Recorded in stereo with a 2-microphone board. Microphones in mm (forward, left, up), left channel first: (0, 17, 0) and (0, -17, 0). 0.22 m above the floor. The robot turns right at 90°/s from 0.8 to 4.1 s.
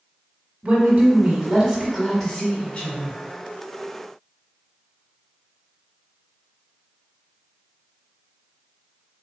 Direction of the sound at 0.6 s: 130° right.